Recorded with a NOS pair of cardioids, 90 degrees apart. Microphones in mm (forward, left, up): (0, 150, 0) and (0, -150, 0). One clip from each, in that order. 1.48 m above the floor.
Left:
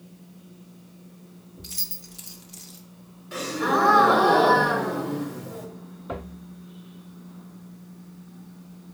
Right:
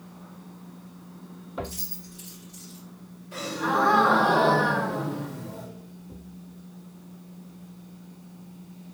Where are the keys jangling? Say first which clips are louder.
Left 4 dB; 55° left, 1.0 m.